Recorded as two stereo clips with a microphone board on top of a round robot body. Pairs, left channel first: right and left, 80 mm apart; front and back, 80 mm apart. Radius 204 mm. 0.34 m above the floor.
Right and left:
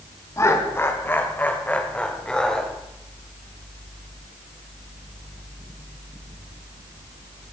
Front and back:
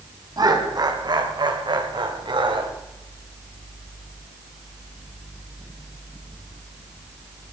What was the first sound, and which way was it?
Laughter, 145° right.